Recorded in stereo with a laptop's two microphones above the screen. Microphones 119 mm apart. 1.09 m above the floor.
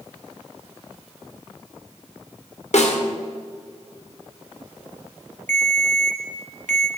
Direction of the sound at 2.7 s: 65° left (ahead or behind).